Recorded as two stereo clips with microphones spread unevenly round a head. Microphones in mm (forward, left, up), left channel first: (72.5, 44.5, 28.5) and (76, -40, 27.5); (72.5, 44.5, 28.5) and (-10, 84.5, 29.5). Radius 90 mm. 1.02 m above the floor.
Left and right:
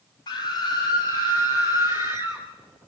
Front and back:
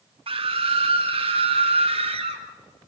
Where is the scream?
140° left, 1.5 m; by 2.5 s 155° left, 4 m.